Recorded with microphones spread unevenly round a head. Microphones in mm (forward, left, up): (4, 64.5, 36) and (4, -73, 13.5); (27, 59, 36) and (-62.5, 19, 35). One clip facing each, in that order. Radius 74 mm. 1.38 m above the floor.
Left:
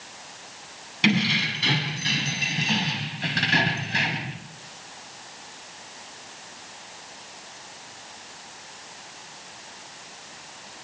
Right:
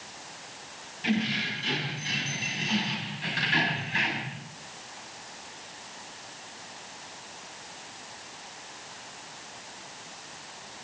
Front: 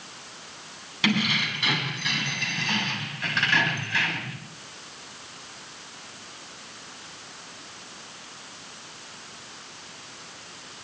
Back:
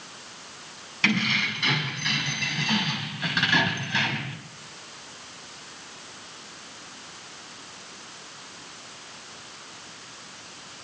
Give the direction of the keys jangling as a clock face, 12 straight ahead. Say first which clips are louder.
Left 5 dB, front 1 dB; 9 o'clock.